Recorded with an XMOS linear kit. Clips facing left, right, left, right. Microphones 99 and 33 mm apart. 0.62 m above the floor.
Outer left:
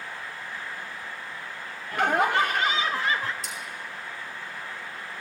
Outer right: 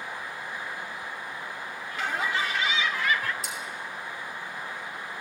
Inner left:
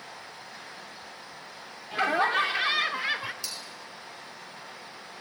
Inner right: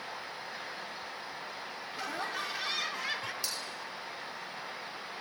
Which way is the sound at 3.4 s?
Centre (ahead or behind).